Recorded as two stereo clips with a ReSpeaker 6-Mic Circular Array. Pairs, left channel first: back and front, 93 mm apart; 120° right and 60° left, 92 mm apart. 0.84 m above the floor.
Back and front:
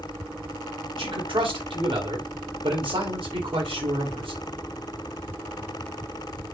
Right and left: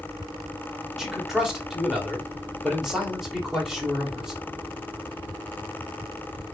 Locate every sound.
1.0 s a man speaking: 25° right, 1.7 m